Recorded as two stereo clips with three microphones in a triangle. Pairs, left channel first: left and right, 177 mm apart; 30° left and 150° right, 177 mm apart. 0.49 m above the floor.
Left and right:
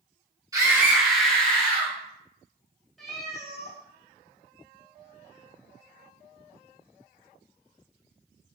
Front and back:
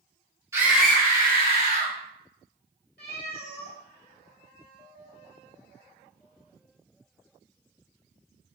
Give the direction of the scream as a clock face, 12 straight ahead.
4 o'clock.